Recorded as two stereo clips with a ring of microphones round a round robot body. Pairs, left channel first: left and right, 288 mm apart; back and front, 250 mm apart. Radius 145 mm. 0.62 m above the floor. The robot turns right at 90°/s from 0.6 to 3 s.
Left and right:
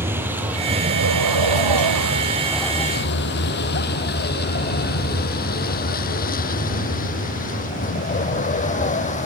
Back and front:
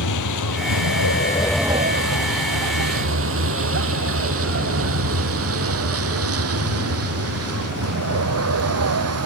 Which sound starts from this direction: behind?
A vehicle, at 0.0 s.